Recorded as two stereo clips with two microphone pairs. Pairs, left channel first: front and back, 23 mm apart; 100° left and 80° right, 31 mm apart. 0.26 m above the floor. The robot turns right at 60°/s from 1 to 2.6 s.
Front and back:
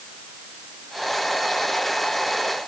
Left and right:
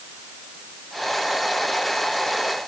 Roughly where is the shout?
I don't hear a shout.